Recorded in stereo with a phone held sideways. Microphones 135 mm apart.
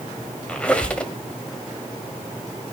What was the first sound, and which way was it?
A squeak, 10° left (ahead or behind).